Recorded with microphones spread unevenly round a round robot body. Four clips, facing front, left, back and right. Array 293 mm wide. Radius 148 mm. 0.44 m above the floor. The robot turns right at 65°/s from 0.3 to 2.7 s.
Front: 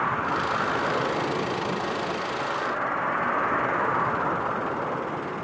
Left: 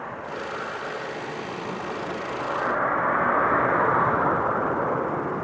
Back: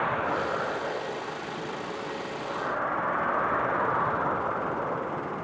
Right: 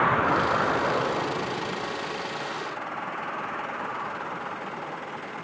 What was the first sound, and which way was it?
A vehicle, 85° right.